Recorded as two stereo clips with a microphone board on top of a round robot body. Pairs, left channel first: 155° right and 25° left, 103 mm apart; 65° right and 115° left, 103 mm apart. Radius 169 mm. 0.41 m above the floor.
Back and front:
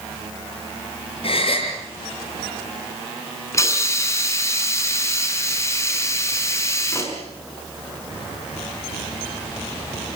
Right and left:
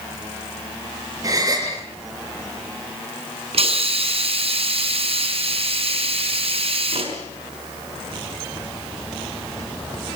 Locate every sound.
1.2 s a gasp: 170° left, 6.5 m
3.5 s a hiss: 140° left, 5.5 m